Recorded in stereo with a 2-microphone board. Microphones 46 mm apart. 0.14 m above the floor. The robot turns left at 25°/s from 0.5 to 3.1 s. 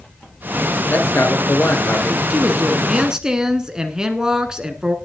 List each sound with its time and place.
0.9 s a man speaking: 100° left, 3 m; by 2.2 s 70° left, 3 m
2.3 s a woman speaking: 25° right (ahead or behind), 1.4 m; by 5.0 s 15° right (ahead or behind), 1.4 m